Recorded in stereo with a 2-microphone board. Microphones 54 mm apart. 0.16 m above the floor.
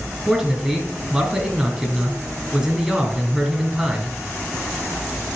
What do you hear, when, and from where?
0.3 s a man speaking: 10° right (ahead or behind), 2.5 m